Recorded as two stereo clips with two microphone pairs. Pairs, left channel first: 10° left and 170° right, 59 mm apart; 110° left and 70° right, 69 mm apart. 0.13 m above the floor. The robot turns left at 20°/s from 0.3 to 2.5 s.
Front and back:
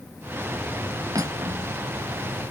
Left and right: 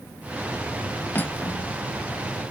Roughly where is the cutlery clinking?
Behind.